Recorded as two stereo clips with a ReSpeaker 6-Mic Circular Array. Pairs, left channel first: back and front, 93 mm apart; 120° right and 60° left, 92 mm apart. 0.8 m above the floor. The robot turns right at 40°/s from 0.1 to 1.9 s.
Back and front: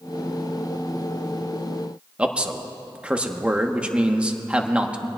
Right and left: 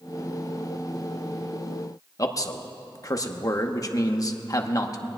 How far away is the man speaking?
About 1.0 m.